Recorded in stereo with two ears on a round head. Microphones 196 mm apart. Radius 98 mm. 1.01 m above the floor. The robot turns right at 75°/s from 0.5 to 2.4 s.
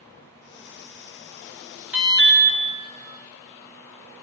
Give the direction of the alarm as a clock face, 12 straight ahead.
12 o'clock.